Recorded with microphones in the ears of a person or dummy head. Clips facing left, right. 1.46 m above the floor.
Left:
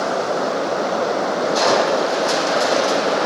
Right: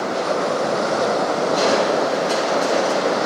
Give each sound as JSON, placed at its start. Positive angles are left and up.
{"t": 1.6, "sound": "crushing", "side_deg": 80, "distance_m": 4.5}